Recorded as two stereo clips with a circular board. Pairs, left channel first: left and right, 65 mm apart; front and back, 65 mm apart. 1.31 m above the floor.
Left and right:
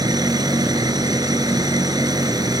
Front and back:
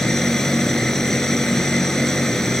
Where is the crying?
I don't hear crying.